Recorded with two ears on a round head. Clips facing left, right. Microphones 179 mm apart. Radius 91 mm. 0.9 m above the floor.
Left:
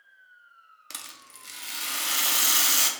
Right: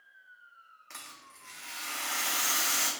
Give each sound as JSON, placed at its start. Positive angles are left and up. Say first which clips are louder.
{"t": 0.9, "sound": "a rattle", "louder": "left 3 dB", "side_deg": 45, "distance_m": 0.6}